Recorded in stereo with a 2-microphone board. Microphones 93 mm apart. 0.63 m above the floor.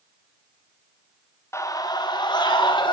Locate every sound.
1.5 s a scream: 30° left (ahead or behind), 1.0 m; by 2.9 s 50° left (ahead or behind), 3 m